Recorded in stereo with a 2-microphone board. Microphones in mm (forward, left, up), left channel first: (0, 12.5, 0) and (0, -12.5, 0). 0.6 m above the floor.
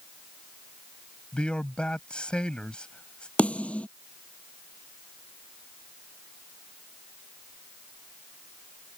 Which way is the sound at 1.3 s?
40° left (ahead or behind).